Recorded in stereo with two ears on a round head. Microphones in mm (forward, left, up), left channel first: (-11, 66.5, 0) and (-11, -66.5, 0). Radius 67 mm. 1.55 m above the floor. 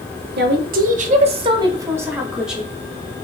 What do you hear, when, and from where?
0.4 s a woman speaking: 80° right, 0.8 m; by 2.7 s centre (ahead or behind), 1.1 m